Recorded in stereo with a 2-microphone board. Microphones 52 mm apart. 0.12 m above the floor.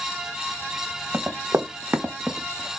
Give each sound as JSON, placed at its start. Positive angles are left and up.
{"t": 1.1, "sound": "running footsteps", "side_deg": -55, "distance_m": 1.2}